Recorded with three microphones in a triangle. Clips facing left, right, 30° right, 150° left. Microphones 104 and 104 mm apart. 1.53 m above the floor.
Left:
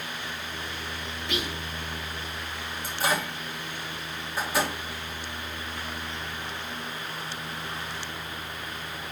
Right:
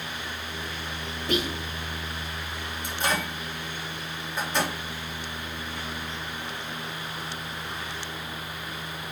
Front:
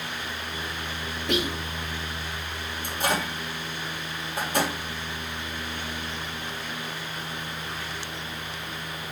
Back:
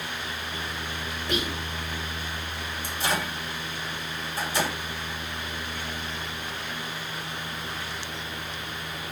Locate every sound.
1.3 s whispering: 45° right, 3.5 m
2.8 s a microwave: 5° left, 3 m